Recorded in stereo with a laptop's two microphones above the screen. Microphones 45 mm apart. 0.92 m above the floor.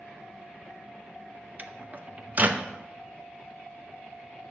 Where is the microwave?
45° right (ahead or behind), 0.8 m.